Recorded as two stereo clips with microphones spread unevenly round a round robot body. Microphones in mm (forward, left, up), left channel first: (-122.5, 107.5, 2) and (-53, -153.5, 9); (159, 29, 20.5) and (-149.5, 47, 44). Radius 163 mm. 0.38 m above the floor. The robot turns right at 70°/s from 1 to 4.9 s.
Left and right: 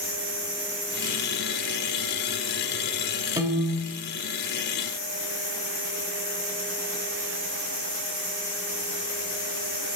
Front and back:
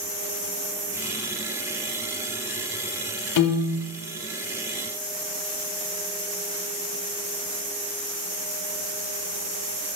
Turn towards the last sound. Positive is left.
turn(degrees=110)